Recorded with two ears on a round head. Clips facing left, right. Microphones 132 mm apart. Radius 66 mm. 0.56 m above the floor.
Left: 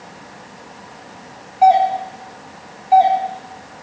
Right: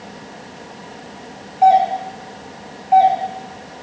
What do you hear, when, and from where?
1.6 s a doorbell: 50° left (ahead or behind), 1.9 m